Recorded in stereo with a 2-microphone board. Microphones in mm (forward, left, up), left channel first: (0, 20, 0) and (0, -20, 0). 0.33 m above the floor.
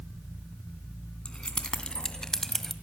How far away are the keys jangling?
About 2.5 m.